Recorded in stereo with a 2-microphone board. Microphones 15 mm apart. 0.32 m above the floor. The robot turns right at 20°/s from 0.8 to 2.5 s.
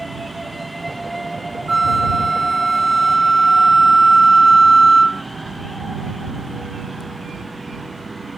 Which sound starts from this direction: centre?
A flute, at 1.7 s.